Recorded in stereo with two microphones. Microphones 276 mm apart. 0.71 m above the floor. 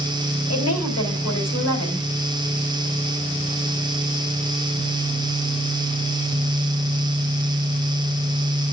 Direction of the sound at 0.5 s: 60° left (ahead or behind).